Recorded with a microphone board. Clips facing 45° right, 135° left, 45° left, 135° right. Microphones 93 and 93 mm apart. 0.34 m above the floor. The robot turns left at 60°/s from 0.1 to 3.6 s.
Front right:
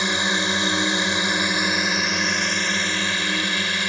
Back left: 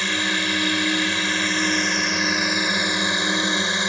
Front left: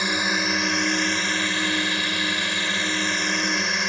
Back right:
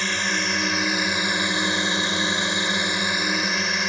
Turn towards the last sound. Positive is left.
turn(degrees=140)